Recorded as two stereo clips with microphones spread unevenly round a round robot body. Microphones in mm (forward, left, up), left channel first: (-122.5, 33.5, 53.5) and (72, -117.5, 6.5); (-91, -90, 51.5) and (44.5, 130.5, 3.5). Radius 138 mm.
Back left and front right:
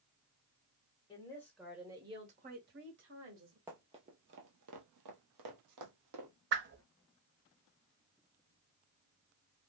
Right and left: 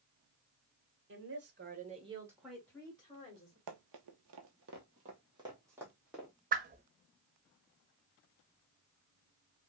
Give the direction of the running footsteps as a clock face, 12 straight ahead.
10 o'clock.